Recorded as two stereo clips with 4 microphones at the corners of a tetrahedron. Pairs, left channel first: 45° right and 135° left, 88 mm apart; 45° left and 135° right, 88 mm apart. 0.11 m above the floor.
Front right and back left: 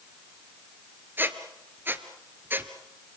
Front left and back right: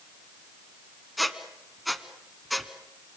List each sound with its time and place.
1.2 s a squeak: 135° left, 1.1 m